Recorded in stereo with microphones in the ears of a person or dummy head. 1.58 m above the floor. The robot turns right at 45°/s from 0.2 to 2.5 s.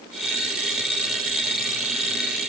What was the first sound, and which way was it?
Only background noise.